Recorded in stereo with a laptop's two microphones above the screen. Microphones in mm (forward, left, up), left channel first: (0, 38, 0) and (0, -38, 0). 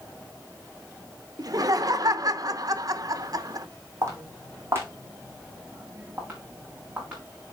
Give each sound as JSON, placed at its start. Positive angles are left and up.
{"t": 1.4, "sound": "laughter", "side_deg": -50, "distance_m": 0.8}
{"t": 4.0, "sound": "footsteps", "side_deg": -40, "distance_m": 2.5}